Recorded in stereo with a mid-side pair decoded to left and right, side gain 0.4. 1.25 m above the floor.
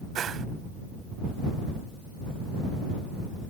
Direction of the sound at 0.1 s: 65° right.